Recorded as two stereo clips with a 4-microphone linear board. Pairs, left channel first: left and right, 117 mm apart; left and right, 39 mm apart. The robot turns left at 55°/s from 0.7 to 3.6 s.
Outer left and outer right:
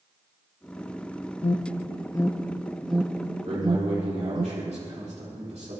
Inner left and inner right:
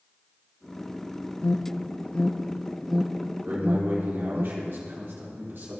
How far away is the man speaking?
About 4 m.